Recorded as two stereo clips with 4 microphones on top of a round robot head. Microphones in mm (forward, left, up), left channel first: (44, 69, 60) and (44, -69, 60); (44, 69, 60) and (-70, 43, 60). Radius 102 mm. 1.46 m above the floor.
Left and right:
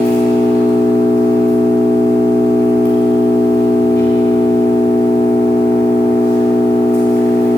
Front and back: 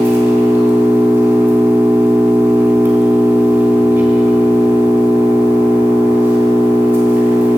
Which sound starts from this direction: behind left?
An engine running, at 0.0 s.